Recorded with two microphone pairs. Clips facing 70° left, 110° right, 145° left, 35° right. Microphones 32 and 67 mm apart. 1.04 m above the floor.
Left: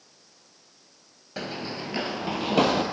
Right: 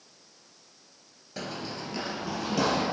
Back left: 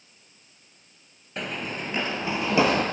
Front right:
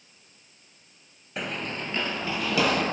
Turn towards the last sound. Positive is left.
turn(degrees=90)